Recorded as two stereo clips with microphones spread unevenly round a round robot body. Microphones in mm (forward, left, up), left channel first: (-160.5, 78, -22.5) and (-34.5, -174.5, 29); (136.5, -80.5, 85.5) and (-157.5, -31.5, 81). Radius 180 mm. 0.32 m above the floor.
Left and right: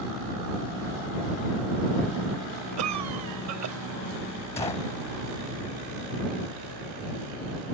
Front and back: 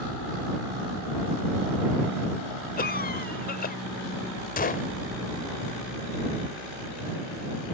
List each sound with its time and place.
2.8 s a cough: 60° right
4.6 s a gunshot: 45° left